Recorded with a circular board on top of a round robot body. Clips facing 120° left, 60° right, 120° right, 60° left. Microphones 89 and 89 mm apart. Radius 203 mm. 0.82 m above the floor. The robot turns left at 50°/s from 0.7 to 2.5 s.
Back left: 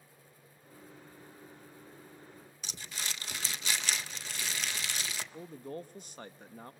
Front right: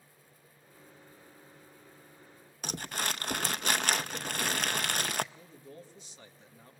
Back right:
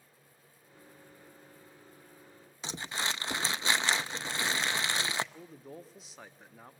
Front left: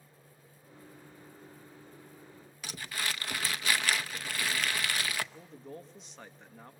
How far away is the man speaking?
About 0.9 m.